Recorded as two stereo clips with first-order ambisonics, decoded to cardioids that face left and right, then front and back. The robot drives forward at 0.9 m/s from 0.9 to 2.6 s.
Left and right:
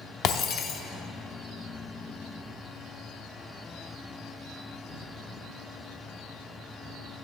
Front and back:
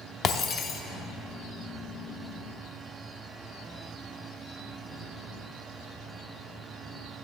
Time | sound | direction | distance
0.2 | breaking glass | 55° left | 0.6 m